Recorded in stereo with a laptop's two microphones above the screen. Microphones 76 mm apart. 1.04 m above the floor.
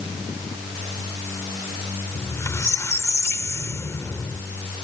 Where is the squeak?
40° left (ahead or behind).